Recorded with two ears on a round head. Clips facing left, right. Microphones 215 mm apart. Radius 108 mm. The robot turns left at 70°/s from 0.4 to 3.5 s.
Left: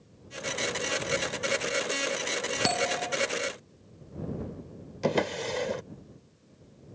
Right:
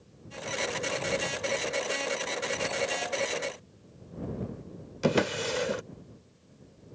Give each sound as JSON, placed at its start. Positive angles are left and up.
{"t": 2.6, "sound": "a bell", "azimuth_deg": 80}
{"t": 5.0, "sound": "a drawer", "side_deg": -10}